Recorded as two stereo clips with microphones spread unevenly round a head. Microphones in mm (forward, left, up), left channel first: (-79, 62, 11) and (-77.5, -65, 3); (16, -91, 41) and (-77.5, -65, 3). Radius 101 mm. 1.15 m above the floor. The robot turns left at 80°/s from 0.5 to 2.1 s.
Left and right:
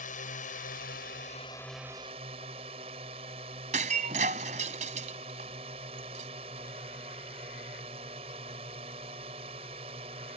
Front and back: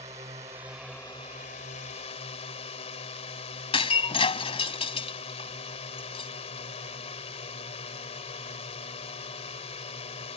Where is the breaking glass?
30° right.